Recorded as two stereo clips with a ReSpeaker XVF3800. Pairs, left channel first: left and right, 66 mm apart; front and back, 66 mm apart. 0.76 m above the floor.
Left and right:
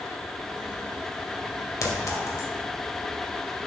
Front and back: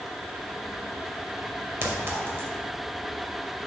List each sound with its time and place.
1.8 s a clink: 130° left, 1.7 m